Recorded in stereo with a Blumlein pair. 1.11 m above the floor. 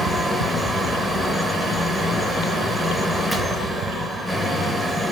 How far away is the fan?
About 0.8 m.